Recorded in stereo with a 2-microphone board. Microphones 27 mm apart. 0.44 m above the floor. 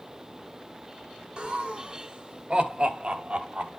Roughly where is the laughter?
Right.